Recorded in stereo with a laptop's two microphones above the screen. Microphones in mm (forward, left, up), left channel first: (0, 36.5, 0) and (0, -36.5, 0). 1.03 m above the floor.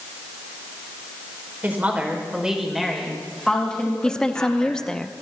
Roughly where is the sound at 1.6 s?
Right.